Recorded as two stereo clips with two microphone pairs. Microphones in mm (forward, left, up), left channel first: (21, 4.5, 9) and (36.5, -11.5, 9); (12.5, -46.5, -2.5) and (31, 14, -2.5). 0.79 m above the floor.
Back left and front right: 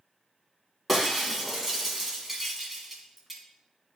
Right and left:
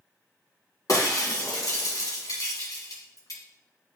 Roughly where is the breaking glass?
Behind right.